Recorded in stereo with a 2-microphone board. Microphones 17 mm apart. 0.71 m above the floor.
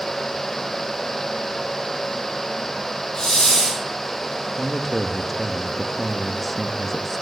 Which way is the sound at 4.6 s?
5° left (ahead or behind).